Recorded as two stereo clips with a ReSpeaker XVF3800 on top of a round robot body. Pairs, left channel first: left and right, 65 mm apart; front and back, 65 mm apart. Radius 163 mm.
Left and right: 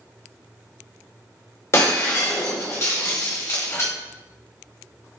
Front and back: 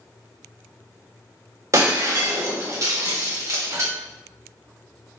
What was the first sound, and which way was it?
Breaking glass, 135° left.